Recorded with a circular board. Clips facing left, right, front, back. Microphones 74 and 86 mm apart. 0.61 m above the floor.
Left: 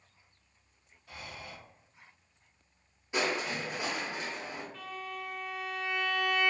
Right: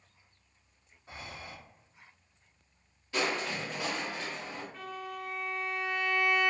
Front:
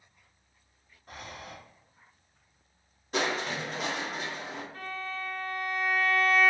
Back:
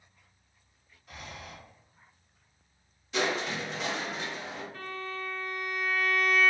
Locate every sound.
1.1 s breathing: 35° right, 0.5 m
3.1 s crushing: 25° left, 0.7 m
4.7 s a violin: 40° right, 1.8 m